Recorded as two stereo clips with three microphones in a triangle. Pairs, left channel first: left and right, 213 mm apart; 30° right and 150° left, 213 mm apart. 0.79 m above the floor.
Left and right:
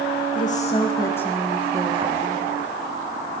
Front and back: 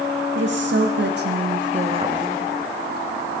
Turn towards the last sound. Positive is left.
turn(degrees=-135)